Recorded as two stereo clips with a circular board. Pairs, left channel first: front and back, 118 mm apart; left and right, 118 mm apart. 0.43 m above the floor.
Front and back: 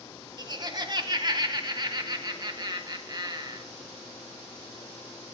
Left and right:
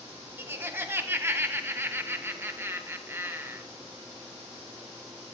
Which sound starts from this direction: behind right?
Laughter, at 0.4 s.